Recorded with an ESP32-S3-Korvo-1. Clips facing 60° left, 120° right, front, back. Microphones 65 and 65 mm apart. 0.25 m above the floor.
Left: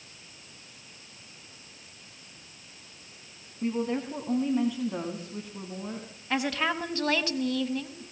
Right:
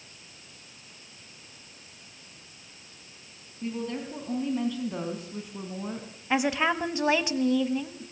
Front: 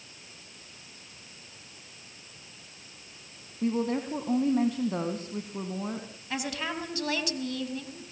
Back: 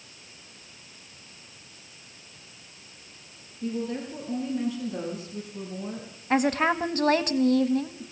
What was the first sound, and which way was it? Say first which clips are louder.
A woman speaking: left 4 dB, front 3 dB; 5° left.